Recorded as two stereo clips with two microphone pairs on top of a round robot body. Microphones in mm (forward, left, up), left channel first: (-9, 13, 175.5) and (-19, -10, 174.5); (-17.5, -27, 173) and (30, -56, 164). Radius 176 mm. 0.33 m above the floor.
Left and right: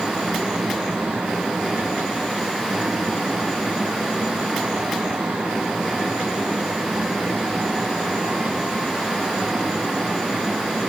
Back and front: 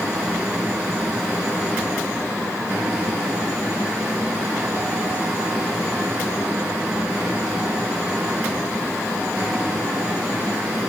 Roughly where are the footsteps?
No footsteps in this recording.